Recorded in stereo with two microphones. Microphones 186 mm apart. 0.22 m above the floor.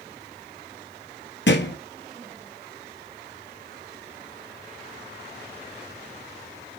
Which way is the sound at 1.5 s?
80° left.